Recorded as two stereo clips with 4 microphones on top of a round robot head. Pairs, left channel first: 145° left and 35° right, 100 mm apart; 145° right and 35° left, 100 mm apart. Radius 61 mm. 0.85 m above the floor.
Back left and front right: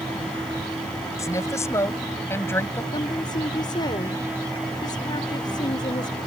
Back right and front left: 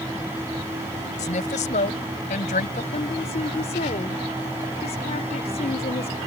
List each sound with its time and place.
1.2 s a woman speaking: 155° right; by 2.8 s 145° right
2.9 s a woman speaking: 165° right